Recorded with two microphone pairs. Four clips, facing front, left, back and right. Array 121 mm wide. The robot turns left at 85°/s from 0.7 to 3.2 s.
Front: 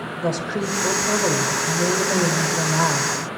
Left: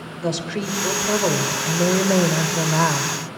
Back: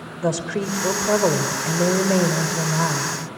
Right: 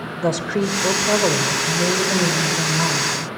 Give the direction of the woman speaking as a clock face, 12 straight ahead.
4 o'clock.